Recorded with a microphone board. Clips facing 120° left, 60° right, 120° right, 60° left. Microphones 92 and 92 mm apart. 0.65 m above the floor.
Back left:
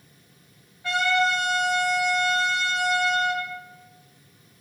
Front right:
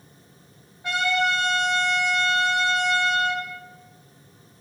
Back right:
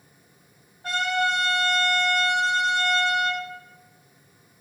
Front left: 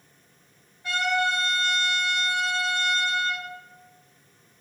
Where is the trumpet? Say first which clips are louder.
Back left 1 dB, back right 1 dB; 115° right, 1.2 m.